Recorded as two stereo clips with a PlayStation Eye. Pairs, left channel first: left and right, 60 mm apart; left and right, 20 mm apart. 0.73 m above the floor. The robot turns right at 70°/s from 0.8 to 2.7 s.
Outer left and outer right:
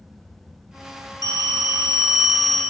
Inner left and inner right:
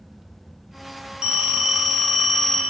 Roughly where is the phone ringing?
Right.